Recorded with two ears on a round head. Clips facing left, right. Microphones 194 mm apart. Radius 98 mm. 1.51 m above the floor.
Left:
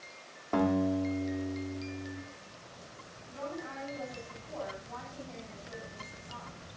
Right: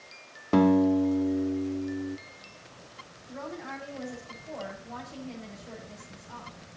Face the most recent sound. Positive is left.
turn(degrees=-85)